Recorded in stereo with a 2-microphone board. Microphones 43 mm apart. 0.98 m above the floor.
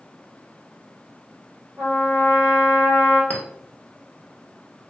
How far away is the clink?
About 0.6 m.